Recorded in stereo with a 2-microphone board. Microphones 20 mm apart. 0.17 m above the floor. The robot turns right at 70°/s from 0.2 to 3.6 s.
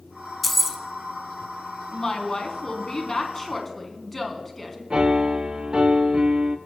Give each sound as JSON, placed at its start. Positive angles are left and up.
{"t": 0.4, "sound": "keys jangling", "side_deg": -5, "distance_m": 0.8}
{"t": 1.9, "sound": "a woman speaking", "azimuth_deg": 45, "distance_m": 1.2}
{"t": 4.9, "sound": "a piano", "side_deg": -40, "distance_m": 0.6}